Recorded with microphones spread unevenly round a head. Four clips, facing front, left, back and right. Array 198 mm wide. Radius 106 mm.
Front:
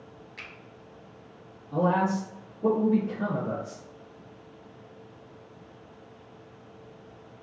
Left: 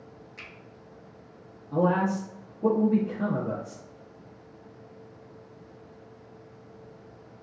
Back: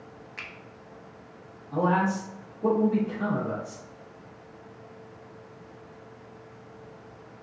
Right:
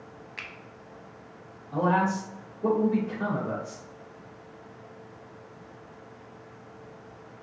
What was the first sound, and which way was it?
A finger snap, 125° right.